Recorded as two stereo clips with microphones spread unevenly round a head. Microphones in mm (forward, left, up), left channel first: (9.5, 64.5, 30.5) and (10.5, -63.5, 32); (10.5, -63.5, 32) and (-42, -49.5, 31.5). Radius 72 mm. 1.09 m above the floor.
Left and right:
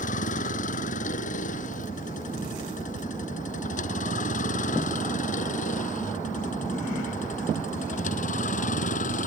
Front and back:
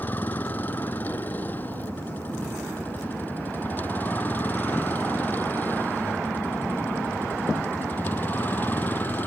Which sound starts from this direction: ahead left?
A vehicle, at 0.0 s.